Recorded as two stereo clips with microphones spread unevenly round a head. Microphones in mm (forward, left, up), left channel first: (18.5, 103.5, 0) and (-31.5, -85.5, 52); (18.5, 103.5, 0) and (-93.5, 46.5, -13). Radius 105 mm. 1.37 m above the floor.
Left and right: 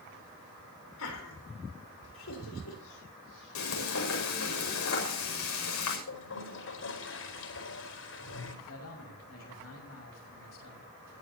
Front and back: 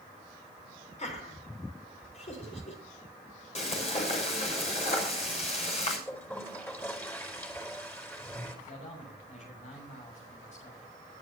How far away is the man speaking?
About 6.5 m.